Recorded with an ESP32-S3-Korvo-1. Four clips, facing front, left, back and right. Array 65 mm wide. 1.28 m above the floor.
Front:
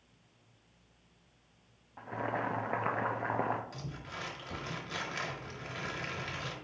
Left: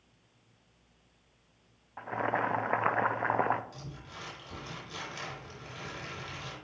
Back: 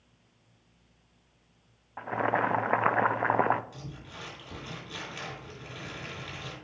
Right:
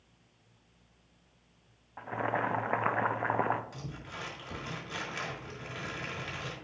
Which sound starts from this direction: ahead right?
Crumpling, at 3.7 s.